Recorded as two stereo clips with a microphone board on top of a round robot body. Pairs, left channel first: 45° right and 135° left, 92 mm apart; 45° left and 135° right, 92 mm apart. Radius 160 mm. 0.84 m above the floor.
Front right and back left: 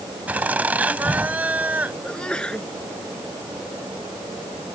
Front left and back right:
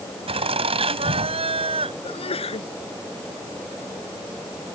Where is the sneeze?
35° left.